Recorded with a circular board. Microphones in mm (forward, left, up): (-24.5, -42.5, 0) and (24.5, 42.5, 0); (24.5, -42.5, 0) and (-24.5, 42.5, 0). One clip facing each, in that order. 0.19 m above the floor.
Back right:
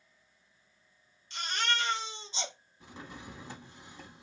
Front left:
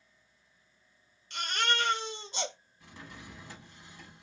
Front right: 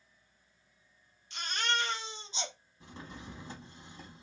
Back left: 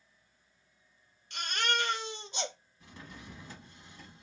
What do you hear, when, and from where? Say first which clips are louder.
1.3 s a baby crying: front left 2 dB, back left 1 dB; 90° left, 1.5 m
2.8 s a drawer: back right 3 dB, front right 3 dB; 75° right, 0.8 m